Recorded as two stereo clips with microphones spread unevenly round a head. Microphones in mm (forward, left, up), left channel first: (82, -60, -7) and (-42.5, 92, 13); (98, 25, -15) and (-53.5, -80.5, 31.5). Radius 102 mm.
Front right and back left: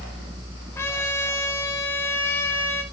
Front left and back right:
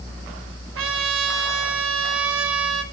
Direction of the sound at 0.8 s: 130° right.